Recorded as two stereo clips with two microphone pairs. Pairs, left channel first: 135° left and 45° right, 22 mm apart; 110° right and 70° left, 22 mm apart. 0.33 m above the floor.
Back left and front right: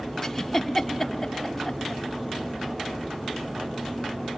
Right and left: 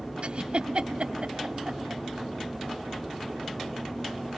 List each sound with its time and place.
0.2 s a giggle: 70° left, 1.9 m